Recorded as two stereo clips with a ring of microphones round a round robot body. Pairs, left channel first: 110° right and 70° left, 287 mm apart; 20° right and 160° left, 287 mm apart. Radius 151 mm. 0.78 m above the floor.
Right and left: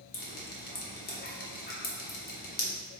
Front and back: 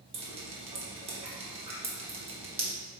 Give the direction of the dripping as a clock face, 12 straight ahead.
5 o'clock.